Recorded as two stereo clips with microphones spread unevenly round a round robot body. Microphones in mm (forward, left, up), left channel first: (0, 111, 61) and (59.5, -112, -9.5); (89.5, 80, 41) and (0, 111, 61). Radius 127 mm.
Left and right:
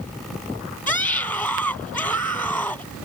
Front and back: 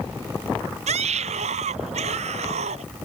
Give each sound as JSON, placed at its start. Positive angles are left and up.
{"t": 0.9, "sound": "a scream", "azimuth_deg": -170}